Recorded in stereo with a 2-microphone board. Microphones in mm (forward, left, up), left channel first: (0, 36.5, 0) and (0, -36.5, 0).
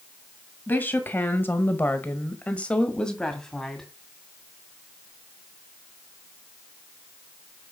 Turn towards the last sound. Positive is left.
turn(degrees=5)  # may be behind; listen again after turning